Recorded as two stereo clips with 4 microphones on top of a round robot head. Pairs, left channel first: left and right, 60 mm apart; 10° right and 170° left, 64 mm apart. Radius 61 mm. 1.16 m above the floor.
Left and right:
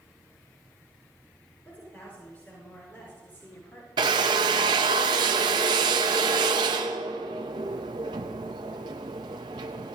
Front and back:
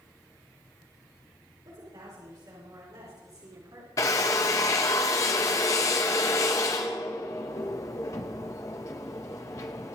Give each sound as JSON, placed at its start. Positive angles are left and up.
{"t": 1.6, "sound": "a woman speaking", "azimuth_deg": 150, "distance_m": 5.0}
{"t": 4.0, "sound": "a drill", "azimuth_deg": -65, "distance_m": 0.6}